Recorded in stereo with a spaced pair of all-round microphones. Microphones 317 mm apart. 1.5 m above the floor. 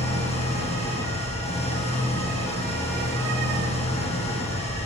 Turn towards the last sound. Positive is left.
turn(degrees=20)  # may be behind; listen again after turning